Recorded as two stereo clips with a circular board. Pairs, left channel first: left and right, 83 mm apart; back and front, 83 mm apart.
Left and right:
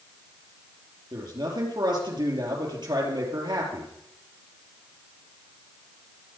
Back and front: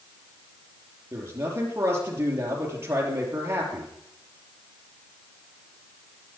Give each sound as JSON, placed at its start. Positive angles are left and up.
{"t": 1.1, "sound": "a man speaking", "azimuth_deg": -60, "distance_m": 6.0}